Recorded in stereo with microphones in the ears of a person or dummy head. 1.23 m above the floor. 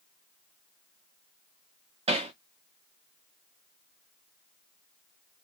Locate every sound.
2.1 s hammering: 30° right (ahead or behind), 0.7 m